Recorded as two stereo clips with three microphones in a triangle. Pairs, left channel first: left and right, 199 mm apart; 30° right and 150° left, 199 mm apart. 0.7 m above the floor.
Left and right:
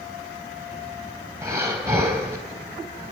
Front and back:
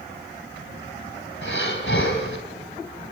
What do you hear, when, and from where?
1.4 s breathing: 15° right, 3 m